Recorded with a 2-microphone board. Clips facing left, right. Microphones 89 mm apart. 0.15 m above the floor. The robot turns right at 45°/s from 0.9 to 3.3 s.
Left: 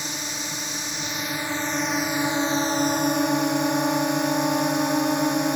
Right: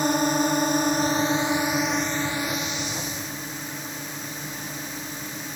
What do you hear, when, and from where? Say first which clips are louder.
0.0 s a drone: right 12 dB; 45° right; by 5.6 s 65° left